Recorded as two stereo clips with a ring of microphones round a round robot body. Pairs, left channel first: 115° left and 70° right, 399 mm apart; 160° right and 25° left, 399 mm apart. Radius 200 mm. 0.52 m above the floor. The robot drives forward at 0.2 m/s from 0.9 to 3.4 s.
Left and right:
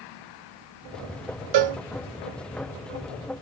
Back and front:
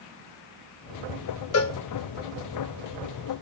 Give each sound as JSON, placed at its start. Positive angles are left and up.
{"t": 1.5, "sound": "a cowbell", "azimuth_deg": -100, "distance_m": 0.7}